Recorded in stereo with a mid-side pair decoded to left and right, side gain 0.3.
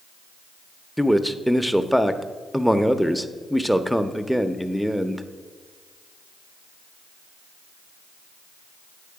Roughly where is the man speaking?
Ahead.